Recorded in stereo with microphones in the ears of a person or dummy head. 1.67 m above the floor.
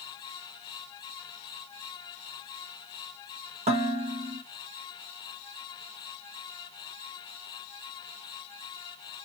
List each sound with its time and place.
3.7 s dishes clattering: 35° right (ahead or behind), 1.1 m